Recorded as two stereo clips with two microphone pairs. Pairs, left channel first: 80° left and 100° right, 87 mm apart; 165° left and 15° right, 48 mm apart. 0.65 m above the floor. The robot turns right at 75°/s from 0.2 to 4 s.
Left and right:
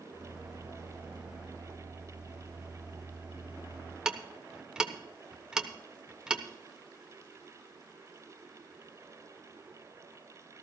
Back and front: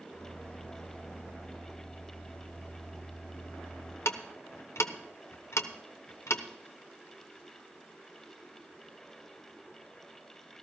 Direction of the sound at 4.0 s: Straight behind.